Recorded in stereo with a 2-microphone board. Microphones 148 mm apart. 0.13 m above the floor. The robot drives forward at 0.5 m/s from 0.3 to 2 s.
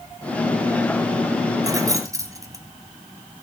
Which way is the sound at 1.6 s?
25° right (ahead or behind).